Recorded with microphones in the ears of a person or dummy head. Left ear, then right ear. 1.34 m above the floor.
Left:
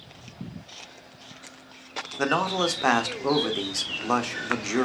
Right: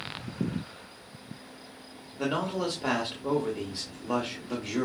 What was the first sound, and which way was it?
A man speaking, 50° left (ahead or behind).